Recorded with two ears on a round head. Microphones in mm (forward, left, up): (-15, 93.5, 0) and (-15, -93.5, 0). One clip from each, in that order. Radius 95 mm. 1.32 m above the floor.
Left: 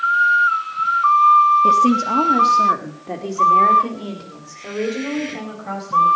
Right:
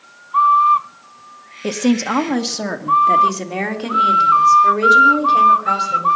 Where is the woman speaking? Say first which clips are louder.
Left 6 dB; 35° right (ahead or behind), 1.2 m; by 6.1 s 80° right, 4 m.